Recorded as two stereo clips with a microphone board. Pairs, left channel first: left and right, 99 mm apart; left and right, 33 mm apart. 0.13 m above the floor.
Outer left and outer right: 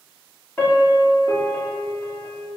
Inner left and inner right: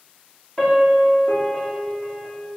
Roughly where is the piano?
Centre.